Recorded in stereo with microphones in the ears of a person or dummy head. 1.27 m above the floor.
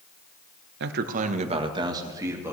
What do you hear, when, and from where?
0.8 s a man speaking: 65° right (ahead or behind), 0.9 m; by 2.5 s 20° right (ahead or behind), 1.9 m